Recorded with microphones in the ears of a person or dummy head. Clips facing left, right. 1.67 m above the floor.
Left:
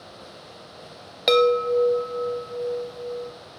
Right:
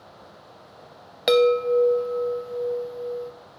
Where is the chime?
Centre (ahead or behind), 0.7 m.